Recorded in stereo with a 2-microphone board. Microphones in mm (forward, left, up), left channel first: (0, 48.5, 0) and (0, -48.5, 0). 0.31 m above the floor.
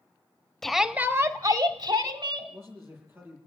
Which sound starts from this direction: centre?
A shout, at 0.6 s.